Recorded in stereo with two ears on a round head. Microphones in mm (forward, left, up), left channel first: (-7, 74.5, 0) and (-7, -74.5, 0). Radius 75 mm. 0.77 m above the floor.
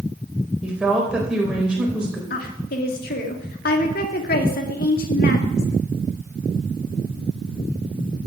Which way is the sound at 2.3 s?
60° left (ahead or behind).